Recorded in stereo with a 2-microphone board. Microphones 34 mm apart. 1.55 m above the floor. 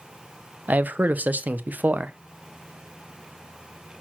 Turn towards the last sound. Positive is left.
turn(degrees=-55)  # may be behind; listen again after turning